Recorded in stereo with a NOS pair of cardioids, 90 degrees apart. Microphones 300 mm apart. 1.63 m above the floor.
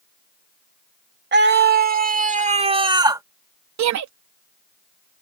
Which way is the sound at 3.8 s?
70° right.